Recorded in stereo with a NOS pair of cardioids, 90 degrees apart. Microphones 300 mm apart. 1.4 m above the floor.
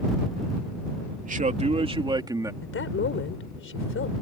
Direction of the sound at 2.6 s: 45° left.